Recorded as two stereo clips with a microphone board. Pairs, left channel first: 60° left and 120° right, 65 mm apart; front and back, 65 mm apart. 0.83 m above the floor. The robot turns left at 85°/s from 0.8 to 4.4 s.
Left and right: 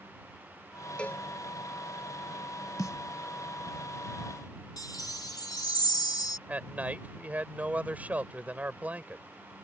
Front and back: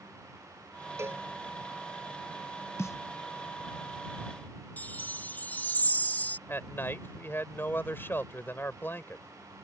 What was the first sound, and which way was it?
A cowbell, 135° left.